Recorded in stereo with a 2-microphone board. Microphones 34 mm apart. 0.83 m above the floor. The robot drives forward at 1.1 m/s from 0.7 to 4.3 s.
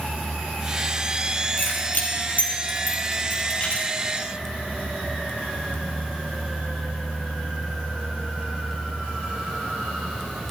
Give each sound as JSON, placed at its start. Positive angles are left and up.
{"t": 1.6, "sound": "keys jangling", "side_deg": 60, "distance_m": 3.0}